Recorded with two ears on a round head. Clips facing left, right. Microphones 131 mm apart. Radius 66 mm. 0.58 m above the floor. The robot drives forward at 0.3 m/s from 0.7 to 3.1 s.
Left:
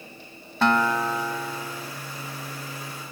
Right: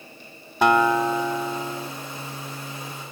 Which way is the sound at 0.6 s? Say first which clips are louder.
Right 4 dB; 15° right (ahead or behind).